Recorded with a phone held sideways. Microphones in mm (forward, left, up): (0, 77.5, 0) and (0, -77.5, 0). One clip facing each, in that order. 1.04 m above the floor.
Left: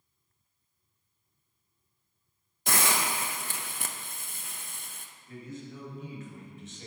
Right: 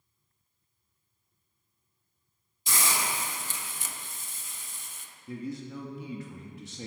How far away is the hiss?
About 0.7 m.